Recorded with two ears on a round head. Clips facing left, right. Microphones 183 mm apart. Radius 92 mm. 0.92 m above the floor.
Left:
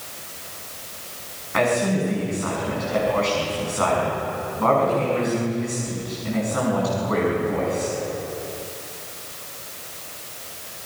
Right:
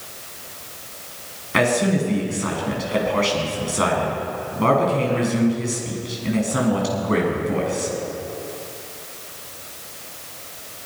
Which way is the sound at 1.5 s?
45° right (ahead or behind).